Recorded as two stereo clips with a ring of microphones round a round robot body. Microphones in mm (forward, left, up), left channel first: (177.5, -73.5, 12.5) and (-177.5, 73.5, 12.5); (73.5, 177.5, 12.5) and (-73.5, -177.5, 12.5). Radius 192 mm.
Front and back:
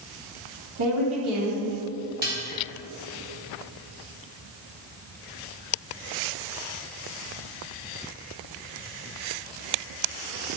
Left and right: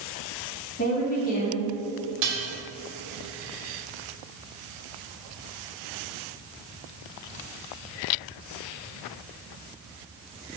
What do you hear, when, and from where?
0.8 s a woman speaking: 135° left, 1.9 m
2.2 s dishes clattering: 135° right, 1.5 m